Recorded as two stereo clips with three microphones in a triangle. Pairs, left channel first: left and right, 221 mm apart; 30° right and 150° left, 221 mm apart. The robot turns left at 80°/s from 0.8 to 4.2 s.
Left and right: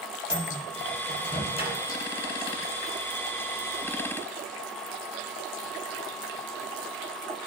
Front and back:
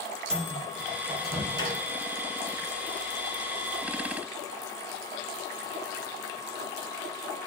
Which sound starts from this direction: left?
A microwave, at 0.3 s.